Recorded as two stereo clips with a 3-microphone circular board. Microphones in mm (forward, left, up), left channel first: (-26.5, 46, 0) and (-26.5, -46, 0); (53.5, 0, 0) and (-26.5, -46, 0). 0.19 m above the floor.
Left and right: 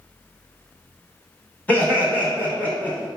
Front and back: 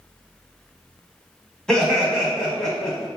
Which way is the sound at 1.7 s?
90° left.